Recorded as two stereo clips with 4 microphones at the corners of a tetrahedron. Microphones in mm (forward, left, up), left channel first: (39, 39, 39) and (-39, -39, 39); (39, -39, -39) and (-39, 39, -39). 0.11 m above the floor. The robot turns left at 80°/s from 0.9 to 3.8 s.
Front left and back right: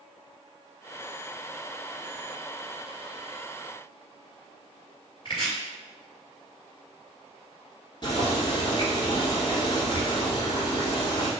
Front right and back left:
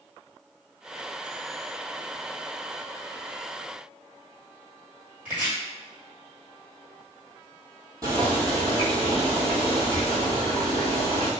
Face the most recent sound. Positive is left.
turn(degrees=85)